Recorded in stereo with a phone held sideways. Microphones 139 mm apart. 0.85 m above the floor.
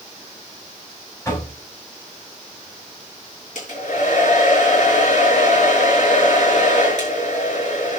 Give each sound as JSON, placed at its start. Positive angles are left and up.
{"t": 1.2, "sound": "knocking", "side_deg": 20, "distance_m": 5.0}
{"t": 3.5, "sound": "a hair dryer", "side_deg": 60, "distance_m": 6.5}